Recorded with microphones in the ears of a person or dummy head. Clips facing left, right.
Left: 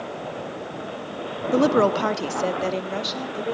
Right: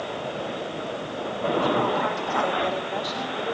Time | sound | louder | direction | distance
1.5 | a woman speaking | left 7 dB | 80° left | 1.1 m